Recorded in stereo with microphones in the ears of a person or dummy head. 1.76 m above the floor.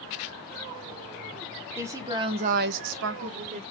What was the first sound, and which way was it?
A woman speaking, 15° right (ahead or behind).